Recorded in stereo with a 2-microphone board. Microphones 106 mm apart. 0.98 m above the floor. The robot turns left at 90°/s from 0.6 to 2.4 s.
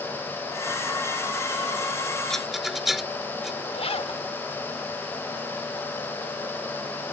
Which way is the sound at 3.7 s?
70° left (ahead or behind).